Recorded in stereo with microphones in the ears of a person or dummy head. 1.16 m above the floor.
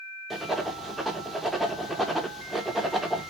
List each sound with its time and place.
0.3 s writing: centre (ahead or behind), 0.6 m